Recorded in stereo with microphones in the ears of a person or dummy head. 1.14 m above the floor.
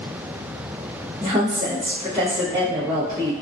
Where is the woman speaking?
25° right (ahead or behind), 0.7 m.